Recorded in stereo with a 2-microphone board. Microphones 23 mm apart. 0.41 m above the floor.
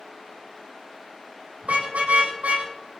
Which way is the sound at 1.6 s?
90° right.